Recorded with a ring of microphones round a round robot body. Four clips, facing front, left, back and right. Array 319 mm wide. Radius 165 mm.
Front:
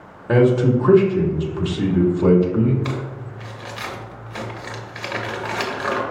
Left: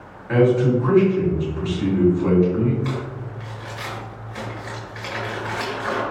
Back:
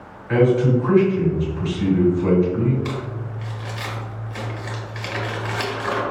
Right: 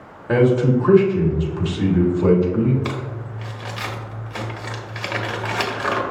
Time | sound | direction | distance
0.3 | a man speaking | 30° right | 1.5 m
2.9 | crumpling | 65° right | 1.4 m